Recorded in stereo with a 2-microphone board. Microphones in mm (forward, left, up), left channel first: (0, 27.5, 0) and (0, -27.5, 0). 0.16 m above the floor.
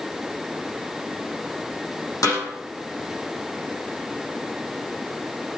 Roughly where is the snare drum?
Left.